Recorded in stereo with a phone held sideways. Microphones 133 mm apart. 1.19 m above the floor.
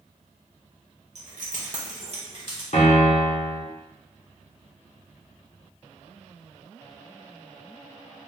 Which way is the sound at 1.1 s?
60° right (ahead or behind).